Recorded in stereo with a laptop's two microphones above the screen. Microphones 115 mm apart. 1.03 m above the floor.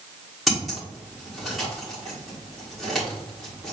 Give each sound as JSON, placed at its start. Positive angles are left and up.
{"t": 0.5, "sound": "scissors", "side_deg": 0, "distance_m": 1.6}